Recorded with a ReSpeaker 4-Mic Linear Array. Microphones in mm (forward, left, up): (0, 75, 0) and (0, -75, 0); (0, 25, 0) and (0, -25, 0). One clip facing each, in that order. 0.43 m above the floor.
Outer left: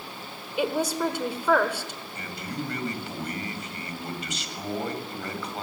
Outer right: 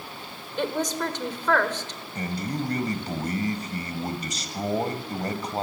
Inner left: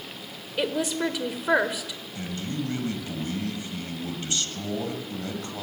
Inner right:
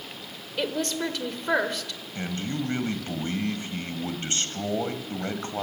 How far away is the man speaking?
About 2.0 m.